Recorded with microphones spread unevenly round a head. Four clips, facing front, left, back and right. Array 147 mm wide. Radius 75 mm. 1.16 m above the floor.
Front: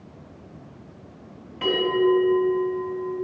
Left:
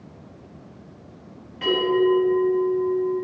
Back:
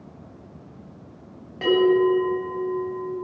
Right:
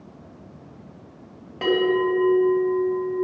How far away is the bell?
About 4 m.